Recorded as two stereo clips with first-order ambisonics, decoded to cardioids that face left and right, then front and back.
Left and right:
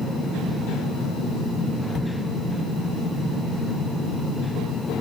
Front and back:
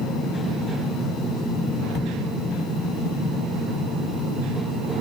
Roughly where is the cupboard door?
Ahead.